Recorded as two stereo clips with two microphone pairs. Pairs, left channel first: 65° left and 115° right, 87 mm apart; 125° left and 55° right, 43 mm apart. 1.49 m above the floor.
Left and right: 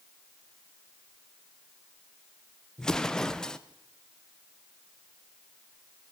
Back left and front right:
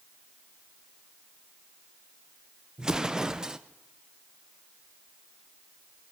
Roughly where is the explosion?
Ahead.